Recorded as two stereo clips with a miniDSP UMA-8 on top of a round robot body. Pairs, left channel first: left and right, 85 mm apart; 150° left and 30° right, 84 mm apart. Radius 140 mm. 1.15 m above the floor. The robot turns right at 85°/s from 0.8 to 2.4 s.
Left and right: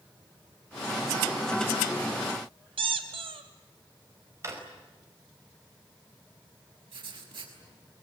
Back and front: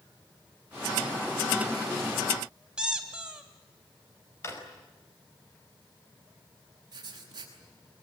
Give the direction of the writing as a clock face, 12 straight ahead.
2 o'clock.